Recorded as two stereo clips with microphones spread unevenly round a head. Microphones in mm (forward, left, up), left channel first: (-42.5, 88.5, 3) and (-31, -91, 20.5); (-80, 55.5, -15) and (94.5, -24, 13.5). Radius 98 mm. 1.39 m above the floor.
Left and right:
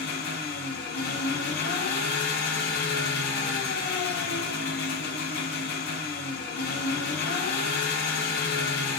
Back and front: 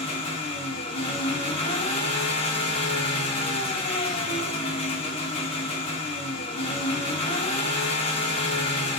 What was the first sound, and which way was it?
An engine running, 95° left.